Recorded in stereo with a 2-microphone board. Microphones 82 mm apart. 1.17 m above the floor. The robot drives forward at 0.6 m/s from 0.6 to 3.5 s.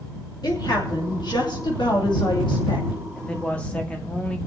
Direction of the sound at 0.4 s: 65° left (ahead or behind).